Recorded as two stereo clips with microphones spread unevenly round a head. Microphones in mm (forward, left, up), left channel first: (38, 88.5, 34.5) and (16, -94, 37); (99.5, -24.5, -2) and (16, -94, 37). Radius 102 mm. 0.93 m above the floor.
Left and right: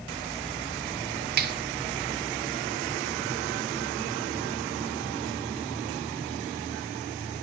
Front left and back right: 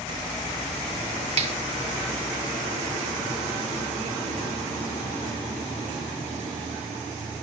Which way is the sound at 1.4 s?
105° right.